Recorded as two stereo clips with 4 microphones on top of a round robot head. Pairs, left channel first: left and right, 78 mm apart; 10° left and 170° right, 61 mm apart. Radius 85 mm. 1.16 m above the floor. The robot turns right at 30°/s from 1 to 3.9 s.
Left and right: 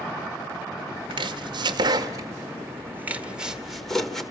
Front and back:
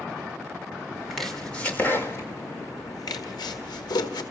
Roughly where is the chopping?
Right.